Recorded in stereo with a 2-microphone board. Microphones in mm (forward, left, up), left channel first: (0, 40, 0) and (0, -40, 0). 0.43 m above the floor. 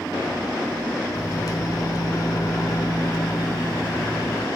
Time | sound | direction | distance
1.1 | a microwave | 50° left (ahead or behind) | 0.9 m